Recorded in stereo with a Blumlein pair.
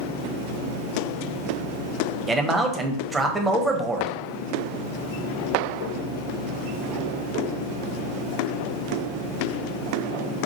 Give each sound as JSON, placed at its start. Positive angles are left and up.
{"t": 2.3, "sound": "a man speaking", "azimuth_deg": -10, "distance_m": 0.7}